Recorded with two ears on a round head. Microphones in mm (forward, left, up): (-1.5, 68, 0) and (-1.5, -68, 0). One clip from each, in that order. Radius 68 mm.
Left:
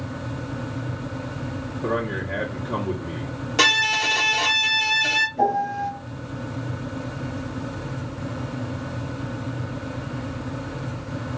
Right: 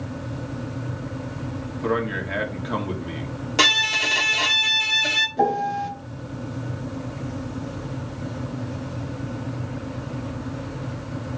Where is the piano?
75° right (ahead or behind), 1.9 m.